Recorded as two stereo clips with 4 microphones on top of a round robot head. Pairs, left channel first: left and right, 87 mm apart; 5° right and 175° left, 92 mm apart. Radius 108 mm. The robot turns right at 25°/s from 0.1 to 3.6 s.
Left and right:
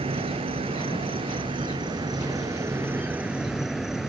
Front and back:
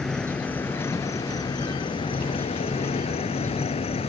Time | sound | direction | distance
0.0 | an insect | 90° right | ?